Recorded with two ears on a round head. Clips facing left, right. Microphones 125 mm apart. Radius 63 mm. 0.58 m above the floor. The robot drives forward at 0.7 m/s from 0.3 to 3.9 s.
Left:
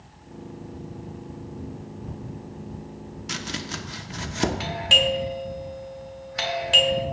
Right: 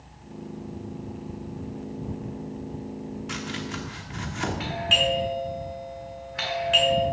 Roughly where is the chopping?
Left.